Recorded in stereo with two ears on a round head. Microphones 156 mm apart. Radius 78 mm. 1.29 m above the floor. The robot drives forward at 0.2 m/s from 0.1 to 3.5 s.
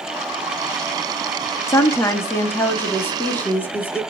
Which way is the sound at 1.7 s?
15° left (ahead or behind).